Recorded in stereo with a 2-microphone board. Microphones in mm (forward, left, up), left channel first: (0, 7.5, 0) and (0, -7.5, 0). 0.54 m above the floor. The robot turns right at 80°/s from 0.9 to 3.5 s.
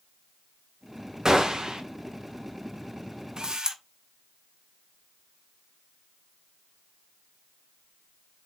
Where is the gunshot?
125° right, 1.7 m; by 1.8 s 80° right, 1.7 m.